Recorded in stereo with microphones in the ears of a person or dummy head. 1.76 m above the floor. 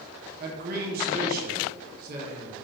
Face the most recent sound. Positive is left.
turn(degrees=-50)  # may be behind; listen again after turning